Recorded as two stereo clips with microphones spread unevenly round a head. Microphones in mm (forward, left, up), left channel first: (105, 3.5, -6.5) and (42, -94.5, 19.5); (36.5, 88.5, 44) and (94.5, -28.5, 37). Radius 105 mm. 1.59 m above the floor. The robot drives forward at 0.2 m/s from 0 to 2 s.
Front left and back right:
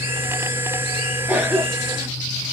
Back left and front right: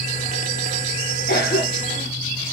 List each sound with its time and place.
1.3 s a cough: 160° left, 0.5 m; by 2.1 s 165° left, 0.7 m